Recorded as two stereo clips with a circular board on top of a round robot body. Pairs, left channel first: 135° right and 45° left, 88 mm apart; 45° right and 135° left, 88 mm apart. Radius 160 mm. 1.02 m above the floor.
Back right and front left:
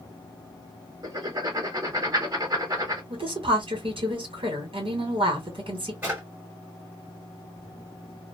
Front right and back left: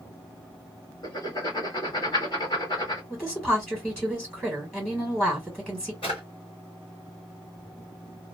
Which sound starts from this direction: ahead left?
A woman speaking, at 3.1 s.